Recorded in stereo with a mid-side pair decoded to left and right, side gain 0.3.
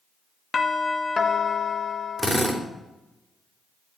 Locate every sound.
0.5 s a doorbell: 50° left, 2 m
2.2 s a drill: 5° right, 4 m